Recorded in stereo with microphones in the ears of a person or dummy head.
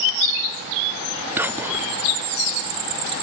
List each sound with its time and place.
1.4 s whispering: 5° right (ahead or behind), 0.6 m